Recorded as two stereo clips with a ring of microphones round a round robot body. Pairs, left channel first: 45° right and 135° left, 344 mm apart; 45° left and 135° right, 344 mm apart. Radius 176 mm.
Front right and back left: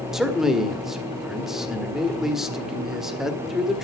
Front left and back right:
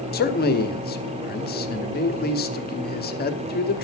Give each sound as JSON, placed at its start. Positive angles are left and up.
{"t": 0.1, "sound": "a man speaking", "azimuth_deg": 50, "distance_m": 1.2}